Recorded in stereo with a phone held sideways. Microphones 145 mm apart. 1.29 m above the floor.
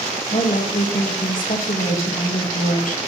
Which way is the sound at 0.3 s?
65° left (ahead or behind).